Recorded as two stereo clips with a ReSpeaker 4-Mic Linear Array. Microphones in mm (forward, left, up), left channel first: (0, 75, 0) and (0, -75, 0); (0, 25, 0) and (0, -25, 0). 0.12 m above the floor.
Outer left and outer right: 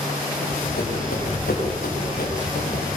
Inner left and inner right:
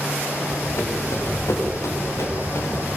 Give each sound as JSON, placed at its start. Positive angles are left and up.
{"t": 0.4, "sound": "running footsteps", "side_deg": 90, "distance_m": 6.0}